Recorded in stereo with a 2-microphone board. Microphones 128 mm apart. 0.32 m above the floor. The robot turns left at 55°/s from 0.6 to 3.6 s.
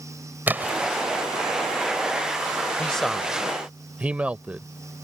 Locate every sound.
0.5 s a splash: 15° right (ahead or behind); by 0.9 s 5° right (ahead or behind)
2.8 s a man speaking: 10° left (ahead or behind); by 4.7 s 10° right (ahead or behind)